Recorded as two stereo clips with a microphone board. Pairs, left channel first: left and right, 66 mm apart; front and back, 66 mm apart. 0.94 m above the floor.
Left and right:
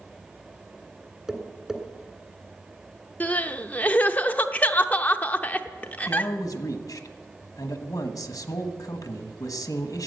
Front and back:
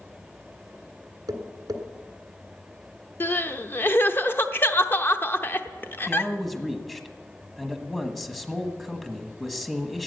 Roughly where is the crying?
Ahead left.